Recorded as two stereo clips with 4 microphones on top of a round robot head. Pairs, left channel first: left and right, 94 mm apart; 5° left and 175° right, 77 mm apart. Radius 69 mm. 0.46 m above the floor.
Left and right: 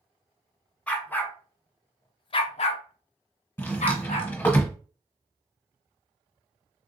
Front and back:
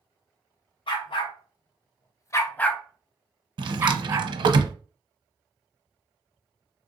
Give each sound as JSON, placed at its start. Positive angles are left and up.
{"t": 0.9, "sound": "a dog barking", "azimuth_deg": 15, "distance_m": 1.1}
{"t": 3.6, "sound": "a drawer", "azimuth_deg": 160, "distance_m": 0.6}